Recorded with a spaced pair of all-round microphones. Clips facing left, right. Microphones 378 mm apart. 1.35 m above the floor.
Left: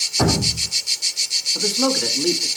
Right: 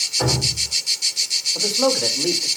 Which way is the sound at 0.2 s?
70° left (ahead or behind).